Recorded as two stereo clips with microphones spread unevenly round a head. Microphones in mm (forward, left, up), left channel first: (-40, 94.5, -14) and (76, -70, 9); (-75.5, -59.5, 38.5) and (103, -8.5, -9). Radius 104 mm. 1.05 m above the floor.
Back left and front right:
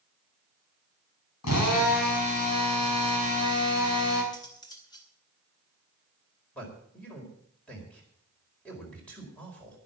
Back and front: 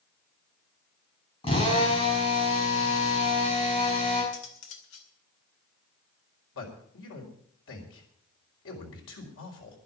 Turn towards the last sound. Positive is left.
turn(degrees=-150)